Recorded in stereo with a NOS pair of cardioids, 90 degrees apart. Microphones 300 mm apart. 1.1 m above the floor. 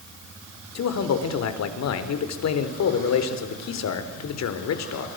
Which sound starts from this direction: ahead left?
A man speaking, at 0.8 s.